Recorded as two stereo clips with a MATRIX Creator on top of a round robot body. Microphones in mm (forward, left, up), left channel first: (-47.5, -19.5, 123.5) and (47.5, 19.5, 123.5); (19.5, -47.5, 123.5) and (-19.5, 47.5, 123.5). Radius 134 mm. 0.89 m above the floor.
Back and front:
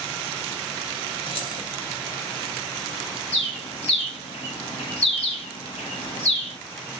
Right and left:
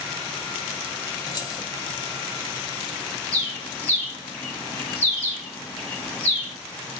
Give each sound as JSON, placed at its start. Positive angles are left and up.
{"t": 1.3, "sound": "keys jangling", "azimuth_deg": -125, "distance_m": 0.9}
{"t": 3.3, "sound": "a bird", "azimuth_deg": -145, "distance_m": 1.3}